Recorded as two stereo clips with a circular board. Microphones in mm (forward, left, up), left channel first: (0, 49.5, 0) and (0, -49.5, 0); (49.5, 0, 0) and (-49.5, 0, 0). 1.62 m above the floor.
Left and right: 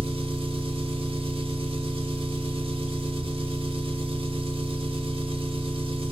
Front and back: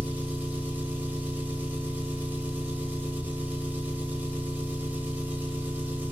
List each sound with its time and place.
0.0 s an engine running: 105° right, 1.3 m